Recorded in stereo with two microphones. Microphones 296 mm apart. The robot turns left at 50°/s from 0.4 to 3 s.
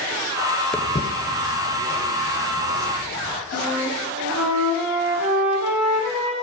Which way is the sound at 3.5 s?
80° left.